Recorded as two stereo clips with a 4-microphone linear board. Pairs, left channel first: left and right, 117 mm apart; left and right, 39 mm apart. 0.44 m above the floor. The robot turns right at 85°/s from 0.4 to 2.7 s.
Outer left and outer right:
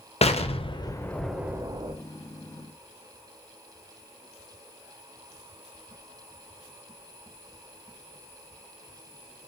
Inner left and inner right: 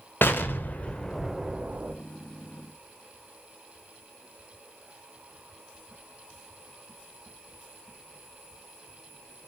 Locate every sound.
0.2 s an explosion: 100° left, 0.6 m; by 1.9 s 125° right, 0.6 m